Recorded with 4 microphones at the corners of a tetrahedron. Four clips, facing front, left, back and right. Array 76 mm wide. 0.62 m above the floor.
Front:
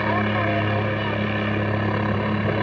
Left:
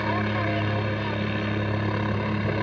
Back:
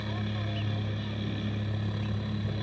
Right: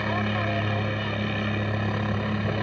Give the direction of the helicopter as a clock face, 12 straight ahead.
12 o'clock.